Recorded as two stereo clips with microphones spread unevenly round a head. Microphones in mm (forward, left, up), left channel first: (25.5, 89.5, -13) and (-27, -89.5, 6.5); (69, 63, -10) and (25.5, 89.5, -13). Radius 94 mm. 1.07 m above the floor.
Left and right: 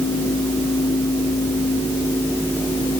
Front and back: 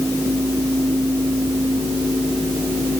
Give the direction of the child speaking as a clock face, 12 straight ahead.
No child speaking in this recording.